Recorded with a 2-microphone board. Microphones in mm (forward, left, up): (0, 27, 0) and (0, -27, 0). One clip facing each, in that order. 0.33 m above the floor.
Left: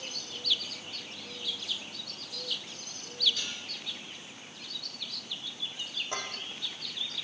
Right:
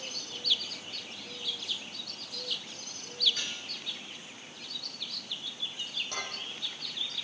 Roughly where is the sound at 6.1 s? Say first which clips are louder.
Left 1 dB; centre.